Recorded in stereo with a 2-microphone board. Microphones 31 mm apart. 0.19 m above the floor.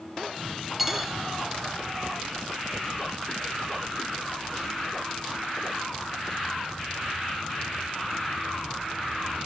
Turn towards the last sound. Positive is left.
turn(degrees=-5)  # may be behind; listen again after turning